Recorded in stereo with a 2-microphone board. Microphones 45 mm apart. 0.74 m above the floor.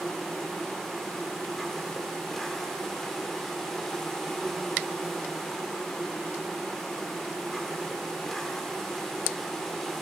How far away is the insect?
About 1.6 m.